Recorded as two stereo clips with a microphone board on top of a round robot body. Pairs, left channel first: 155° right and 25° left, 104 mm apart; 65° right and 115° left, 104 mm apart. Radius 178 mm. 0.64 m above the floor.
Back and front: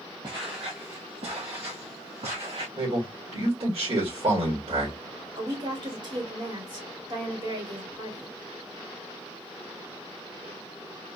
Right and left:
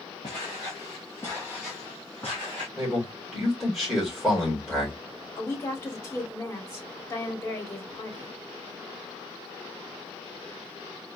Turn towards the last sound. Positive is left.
turn(degrees=-5)